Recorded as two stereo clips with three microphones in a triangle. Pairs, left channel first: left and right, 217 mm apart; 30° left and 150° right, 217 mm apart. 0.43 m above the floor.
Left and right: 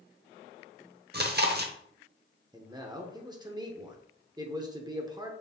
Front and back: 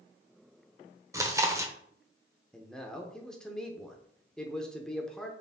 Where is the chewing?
75° right, 0.7 m.